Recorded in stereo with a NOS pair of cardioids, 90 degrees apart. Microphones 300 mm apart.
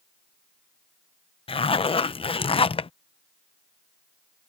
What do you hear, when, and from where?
1.5 s a zipper: 20° left